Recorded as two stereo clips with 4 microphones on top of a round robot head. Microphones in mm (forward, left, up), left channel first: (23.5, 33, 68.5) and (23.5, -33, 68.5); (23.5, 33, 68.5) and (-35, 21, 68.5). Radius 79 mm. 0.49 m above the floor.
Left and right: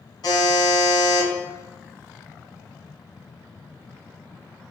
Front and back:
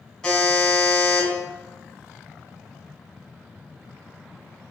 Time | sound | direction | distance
0.2 | a buzzer | 90° left | 1.9 m